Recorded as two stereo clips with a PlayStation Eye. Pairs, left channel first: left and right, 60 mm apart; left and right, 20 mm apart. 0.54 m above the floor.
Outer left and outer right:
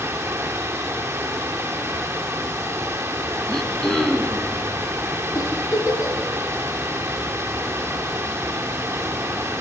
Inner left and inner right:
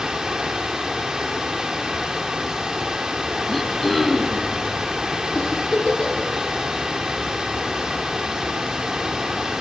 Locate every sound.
0.0 s running water: 35° right (ahead or behind), 6 m
3.5 s throat clearing: 5° left (ahead or behind), 3.5 m
5.3 s a giggle: 70° left (ahead or behind), 9 m